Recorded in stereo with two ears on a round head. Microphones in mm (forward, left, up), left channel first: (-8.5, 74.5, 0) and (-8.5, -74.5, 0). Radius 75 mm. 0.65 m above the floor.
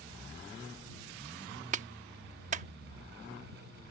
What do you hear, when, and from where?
1.7 s a clap: 40° right (ahead or behind)